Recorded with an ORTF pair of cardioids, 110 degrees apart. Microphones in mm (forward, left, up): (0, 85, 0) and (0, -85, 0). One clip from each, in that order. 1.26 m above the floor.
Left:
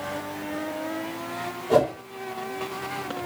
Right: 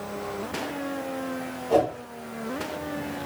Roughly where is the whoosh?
Ahead left.